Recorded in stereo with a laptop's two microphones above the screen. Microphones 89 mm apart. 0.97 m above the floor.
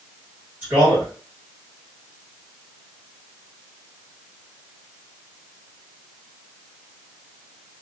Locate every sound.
0.6 s a man speaking: 20° right (ahead or behind), 1.5 m